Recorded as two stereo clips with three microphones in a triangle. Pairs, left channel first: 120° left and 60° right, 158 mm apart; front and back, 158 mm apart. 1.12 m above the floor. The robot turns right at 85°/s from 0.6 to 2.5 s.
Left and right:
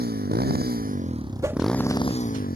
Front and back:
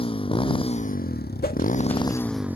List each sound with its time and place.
0.0 s a motorcycle: 55° right; by 2.6 s 100° left
1.4 s a whoosh: 5° left; by 1.6 s 25° left